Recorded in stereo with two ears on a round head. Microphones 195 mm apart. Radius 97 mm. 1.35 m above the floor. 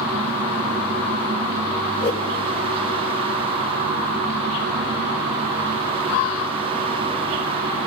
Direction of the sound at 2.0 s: 50° left (ahead or behind).